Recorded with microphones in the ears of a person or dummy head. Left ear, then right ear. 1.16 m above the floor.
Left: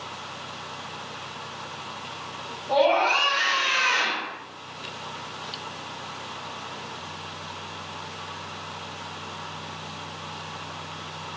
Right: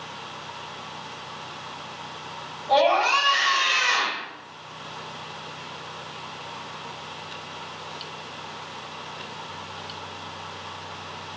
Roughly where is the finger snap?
No finger snap in this recording.